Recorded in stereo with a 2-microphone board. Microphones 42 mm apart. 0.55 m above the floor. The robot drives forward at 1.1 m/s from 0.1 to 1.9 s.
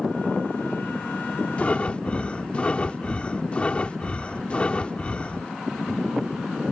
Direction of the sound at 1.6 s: 30° left (ahead or behind).